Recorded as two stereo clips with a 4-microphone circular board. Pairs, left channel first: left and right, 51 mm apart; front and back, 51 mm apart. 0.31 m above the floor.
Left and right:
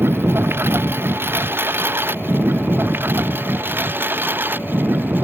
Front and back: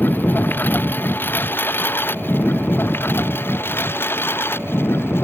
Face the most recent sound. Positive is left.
turn(degrees=-45)